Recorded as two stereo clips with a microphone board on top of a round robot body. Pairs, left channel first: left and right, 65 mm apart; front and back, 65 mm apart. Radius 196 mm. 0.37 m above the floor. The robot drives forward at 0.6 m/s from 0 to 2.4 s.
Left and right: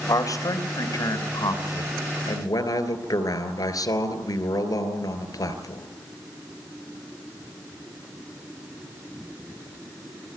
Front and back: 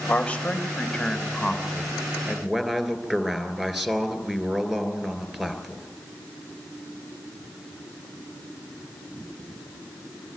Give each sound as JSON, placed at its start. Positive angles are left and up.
{"t": 0.1, "sound": "a man speaking", "azimuth_deg": 70, "distance_m": 3.0}